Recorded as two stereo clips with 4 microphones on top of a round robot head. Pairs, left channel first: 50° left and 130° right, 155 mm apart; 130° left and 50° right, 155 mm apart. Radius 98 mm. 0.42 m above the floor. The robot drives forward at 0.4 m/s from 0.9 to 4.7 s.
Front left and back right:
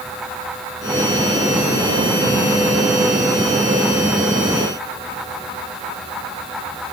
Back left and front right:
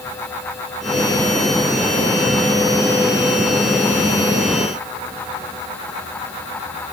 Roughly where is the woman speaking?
No woman speaking in this recording.